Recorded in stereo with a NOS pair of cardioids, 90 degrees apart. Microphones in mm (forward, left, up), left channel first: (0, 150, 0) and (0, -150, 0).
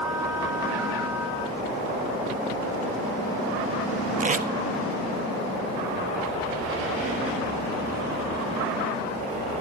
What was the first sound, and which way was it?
Tape being pulled, 25° right.